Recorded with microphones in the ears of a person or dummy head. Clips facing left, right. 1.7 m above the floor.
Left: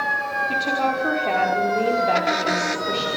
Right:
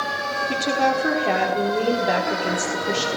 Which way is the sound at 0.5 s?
15° right (ahead or behind).